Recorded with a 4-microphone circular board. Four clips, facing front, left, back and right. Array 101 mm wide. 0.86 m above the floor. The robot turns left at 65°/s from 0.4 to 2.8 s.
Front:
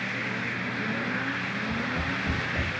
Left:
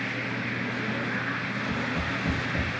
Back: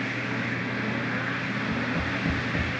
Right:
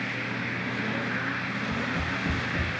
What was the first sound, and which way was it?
Tapping, 160° right.